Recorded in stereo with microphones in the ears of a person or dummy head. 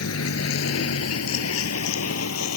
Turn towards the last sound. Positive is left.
turn(degrees=80)